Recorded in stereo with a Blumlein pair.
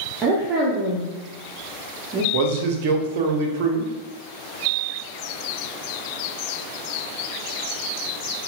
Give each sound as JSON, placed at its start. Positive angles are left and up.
{"t": 0.2, "sound": "a woman speaking", "azimuth_deg": -25, "distance_m": 0.7}
{"t": 2.3, "sound": "a man speaking", "azimuth_deg": -50, "distance_m": 0.6}